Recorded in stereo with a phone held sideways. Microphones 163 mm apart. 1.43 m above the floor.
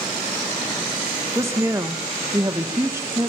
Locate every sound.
1.3 s a woman speaking: 15° right (ahead or behind), 2 m